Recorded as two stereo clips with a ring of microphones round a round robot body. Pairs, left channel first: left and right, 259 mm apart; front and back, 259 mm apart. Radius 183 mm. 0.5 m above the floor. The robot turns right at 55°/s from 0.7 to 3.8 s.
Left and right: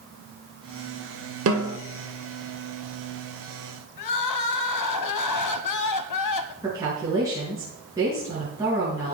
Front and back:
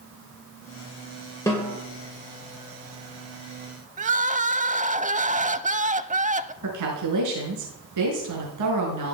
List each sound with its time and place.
1.5 s a snare drum: 80° right, 2 m; by 1.8 s 65° right, 2 m
4.0 s crying: 115° left, 0.8 m
6.6 s a woman speaking: 170° right, 5.5 m